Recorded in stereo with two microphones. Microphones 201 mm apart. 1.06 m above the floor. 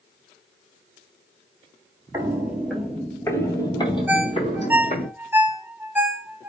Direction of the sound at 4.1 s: 10° right (ahead or behind).